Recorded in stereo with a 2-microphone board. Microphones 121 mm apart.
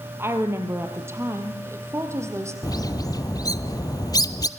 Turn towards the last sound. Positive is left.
turn(degrees=30)  # may be behind; listen again after turning